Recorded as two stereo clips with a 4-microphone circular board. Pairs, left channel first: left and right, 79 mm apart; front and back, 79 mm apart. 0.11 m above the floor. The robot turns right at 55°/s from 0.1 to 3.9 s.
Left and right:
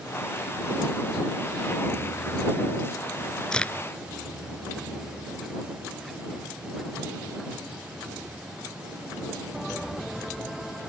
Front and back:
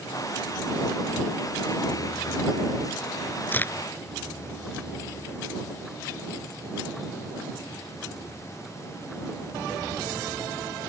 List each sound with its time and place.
3.5 s a crack: 20° left; by 3.7 s 35° left